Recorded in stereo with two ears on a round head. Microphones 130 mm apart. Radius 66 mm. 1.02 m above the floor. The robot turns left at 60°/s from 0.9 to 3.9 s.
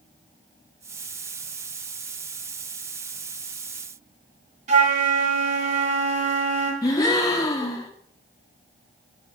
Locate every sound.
4.7 s a flute: 45° right (ahead or behind), 3.5 m
6.8 s a gasp: 25° left (ahead or behind), 2.0 m